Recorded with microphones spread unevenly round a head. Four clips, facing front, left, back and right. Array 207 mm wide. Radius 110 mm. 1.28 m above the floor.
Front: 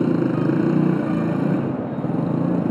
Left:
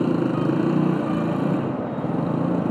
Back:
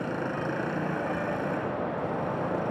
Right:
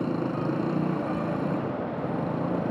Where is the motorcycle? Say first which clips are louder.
Left 7 dB, front 12 dB; 25° left.